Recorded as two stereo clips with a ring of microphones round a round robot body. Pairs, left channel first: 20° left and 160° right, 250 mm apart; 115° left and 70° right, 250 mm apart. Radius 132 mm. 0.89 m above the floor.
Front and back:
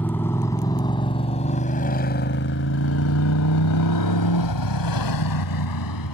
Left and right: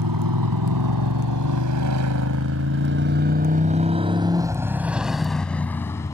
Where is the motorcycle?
60° right; by 6.1 s 35° left.